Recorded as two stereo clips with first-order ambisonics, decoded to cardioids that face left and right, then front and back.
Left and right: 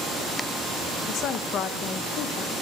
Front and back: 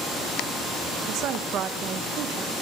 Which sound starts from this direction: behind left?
A woman speaking, at 1.1 s.